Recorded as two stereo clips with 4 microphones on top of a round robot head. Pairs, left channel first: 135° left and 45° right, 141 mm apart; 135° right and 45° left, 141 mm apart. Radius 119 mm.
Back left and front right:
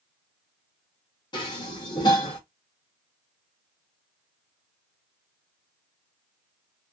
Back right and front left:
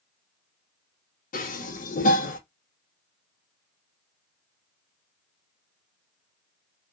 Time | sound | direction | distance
1.3 | dishes clattering | 165° right | 1.1 m